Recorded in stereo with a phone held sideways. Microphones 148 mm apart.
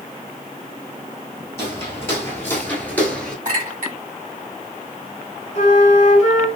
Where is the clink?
60° right (ahead or behind), 1.7 m.